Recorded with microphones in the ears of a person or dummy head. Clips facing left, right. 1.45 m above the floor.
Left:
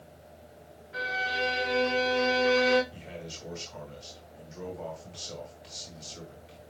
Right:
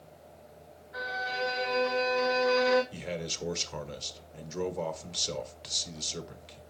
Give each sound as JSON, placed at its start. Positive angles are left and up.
{"t": 0.9, "sound": "a violin", "side_deg": 45, "distance_m": 4.5}
{"t": 2.9, "sound": "a man speaking", "side_deg": -75, "distance_m": 1.3}